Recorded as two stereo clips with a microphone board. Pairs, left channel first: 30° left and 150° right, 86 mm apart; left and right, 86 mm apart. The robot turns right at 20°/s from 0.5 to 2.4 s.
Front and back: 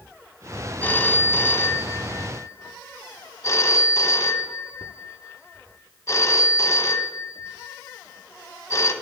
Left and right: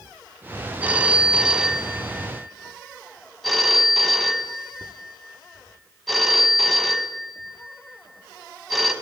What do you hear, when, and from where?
0.8 s a phone ringing: 30° right, 0.7 m; by 8.9 s 5° left, 0.7 m